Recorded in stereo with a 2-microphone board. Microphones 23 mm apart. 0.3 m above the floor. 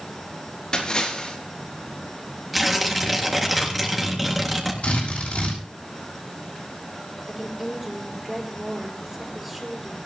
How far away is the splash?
About 3.5 m.